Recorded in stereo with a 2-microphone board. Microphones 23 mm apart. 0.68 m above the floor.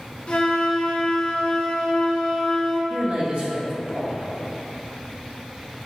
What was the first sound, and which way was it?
A flute, 45° left (ahead or behind).